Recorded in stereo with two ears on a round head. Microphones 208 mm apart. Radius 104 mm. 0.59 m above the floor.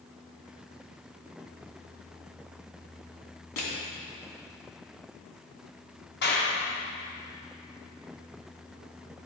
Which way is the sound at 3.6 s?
80° left.